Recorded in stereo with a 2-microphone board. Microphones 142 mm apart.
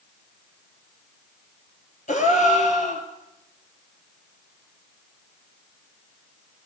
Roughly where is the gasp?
Left.